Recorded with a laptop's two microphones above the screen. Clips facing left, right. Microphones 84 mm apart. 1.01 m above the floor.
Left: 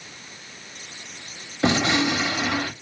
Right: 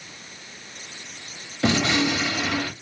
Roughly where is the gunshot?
Left.